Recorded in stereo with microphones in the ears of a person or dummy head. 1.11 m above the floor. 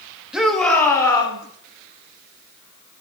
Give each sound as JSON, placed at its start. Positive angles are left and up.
{"t": 0.3, "sound": "a shout", "side_deg": -5, "distance_m": 1.4}